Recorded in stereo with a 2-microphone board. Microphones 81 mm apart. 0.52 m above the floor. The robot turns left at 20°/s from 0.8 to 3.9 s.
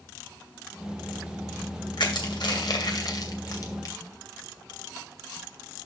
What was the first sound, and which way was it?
Crushing, 70° left (ahead or behind).